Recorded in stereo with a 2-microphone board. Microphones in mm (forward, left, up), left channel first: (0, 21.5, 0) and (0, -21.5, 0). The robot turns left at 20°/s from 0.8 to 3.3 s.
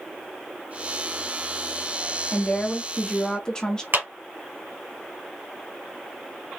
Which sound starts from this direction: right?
A clap, at 3.9 s.